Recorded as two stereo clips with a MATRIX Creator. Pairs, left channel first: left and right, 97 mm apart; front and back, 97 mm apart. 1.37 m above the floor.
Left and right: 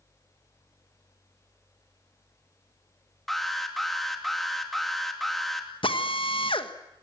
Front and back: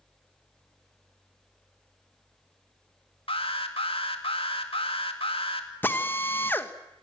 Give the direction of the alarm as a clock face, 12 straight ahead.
12 o'clock.